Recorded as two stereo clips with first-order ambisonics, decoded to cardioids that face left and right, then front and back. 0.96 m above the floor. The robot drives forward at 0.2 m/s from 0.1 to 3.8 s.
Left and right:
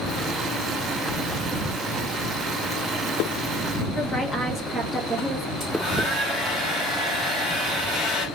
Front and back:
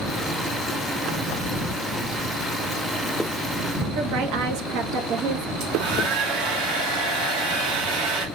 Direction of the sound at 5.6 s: 170° left.